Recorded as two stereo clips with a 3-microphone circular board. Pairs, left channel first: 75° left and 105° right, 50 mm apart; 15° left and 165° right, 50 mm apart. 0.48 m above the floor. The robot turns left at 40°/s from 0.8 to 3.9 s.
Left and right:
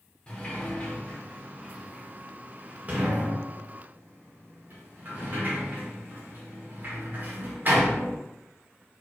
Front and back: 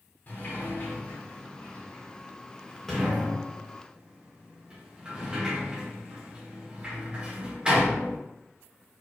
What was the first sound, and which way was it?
A sliding door, 15° left.